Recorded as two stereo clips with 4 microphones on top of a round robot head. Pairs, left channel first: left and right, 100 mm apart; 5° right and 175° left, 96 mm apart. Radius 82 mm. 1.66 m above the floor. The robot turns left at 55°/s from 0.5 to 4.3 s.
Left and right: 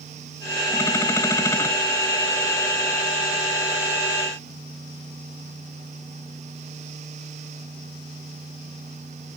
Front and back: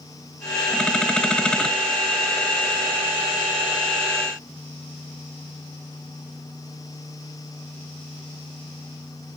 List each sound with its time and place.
Only background noise.